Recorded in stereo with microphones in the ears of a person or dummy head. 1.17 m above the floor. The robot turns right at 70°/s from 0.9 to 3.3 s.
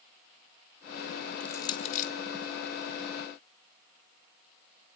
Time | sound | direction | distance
1.4 | crushing | 10° left (ahead or behind) | 1.4 m